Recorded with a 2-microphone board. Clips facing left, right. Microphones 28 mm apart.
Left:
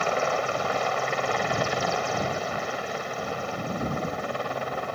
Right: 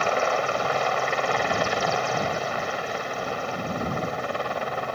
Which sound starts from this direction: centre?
A helicopter, at 0.0 s.